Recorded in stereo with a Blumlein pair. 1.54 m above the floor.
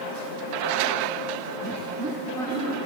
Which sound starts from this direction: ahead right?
Laughter, at 1.6 s.